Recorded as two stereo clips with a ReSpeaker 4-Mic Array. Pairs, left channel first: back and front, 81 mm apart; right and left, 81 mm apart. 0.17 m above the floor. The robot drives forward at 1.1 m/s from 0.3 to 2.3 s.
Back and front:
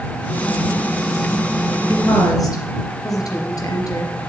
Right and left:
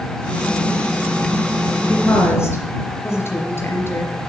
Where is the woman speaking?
140° right, 3 m; by 4.2 s 145° right, 3 m.